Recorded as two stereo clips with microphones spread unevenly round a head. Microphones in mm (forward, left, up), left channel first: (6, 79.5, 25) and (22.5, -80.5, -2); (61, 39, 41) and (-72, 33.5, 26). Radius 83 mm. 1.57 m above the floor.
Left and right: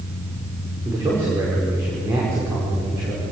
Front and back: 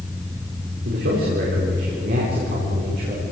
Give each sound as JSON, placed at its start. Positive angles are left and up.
{"t": 0.8, "sound": "a man speaking", "azimuth_deg": -160, "distance_m": 5.5}